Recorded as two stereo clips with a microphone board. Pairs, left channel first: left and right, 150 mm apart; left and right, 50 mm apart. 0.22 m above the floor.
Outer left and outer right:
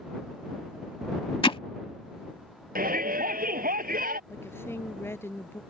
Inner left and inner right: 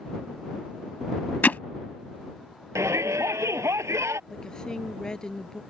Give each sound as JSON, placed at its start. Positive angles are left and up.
{"t": 1.4, "sound": "hammering", "side_deg": 35}
{"t": 2.8, "sound": "a shout", "side_deg": -75}
{"t": 4.3, "sound": "a woman speaking", "side_deg": 15}